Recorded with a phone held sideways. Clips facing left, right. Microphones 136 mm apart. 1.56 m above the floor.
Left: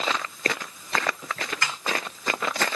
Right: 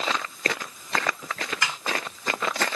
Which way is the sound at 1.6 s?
15° right (ahead or behind).